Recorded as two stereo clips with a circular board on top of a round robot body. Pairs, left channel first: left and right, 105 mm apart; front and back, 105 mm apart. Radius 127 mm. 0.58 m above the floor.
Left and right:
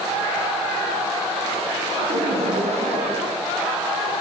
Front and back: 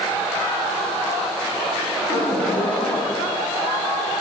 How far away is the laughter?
About 6 m.